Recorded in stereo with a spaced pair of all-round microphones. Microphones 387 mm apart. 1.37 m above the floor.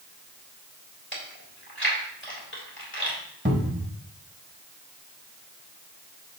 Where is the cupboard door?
30° right (ahead or behind), 1.4 m.